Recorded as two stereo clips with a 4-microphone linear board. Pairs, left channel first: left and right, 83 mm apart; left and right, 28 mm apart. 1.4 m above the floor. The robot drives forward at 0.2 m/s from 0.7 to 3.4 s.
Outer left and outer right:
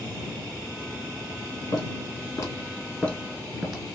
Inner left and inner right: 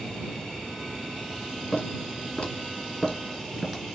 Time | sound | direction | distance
1.7 | footsteps | 50° left (ahead or behind) | 2 m